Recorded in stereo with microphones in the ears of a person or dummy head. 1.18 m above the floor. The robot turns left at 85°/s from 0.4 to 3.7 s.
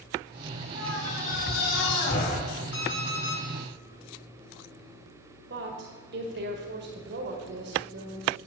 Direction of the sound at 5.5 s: 50° right (ahead or behind).